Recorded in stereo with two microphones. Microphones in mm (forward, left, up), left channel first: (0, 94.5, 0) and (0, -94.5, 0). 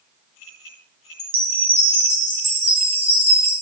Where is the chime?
30° right (ahead or behind), 1.6 m.